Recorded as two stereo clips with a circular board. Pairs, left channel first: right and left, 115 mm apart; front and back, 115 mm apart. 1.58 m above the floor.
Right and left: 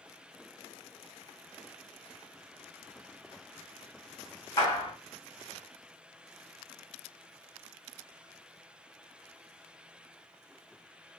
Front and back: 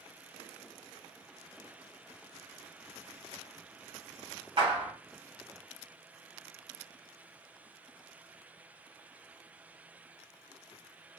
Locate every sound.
4.6 s a clap: 145° right, 1.4 m